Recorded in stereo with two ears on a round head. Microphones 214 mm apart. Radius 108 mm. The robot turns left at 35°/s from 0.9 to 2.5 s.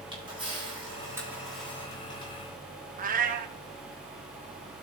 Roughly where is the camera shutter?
Right.